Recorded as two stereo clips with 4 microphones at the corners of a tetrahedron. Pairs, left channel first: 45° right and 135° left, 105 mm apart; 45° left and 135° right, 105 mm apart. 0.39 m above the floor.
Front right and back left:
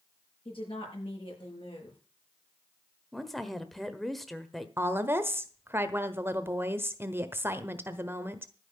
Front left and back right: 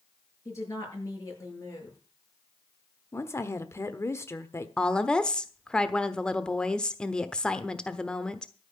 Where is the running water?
No running water in this recording.